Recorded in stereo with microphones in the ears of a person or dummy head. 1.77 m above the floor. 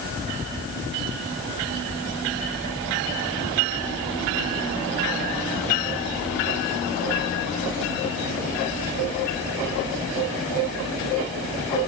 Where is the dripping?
No dripping in this recording.